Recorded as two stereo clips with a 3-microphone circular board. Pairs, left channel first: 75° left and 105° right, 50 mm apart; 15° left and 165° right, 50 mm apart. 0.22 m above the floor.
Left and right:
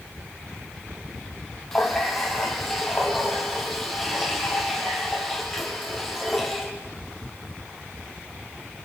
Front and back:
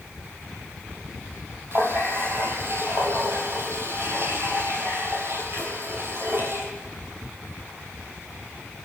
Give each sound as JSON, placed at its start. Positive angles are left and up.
{"t": 1.7, "sound": "a running tap", "azimuth_deg": 160, "distance_m": 4.5}